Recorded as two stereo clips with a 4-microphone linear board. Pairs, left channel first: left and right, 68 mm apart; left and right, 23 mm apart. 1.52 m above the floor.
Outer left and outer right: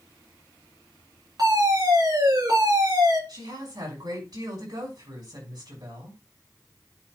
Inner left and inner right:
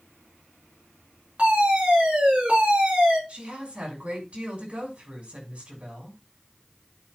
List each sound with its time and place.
1.4 s a fire alarm: 70° right (ahead or behind), 5 m
3.3 s a woman speaking: 80° right, 5.5 m